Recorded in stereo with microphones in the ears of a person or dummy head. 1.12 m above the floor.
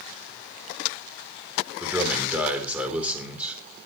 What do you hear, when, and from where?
1.8 s a man speaking: 10° right (ahead or behind), 4 m